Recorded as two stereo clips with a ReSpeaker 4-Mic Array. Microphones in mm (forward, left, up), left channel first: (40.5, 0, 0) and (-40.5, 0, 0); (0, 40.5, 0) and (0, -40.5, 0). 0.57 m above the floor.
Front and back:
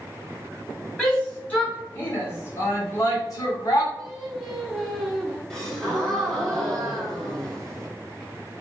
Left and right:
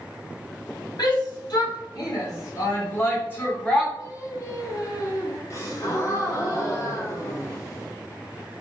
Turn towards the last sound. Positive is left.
turn(degrees=80)